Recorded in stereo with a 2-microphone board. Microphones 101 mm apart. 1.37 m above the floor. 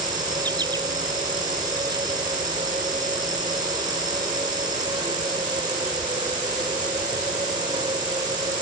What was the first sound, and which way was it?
An insect, 45° right (ahead or behind).